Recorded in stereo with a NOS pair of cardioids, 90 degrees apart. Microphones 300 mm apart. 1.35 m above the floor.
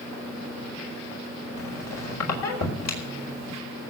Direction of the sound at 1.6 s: 60° left.